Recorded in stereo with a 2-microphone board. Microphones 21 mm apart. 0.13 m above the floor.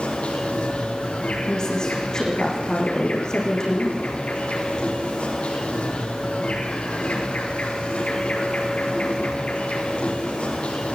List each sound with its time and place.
0.0 s an insect: 65° left (ahead or behind), 9.5 m
1.4 s a woman speaking: 30° left (ahead or behind), 6.5 m